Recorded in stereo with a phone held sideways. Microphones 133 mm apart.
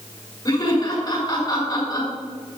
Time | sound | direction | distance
0.5 | laughter | 35° left (ahead or behind) | 5 m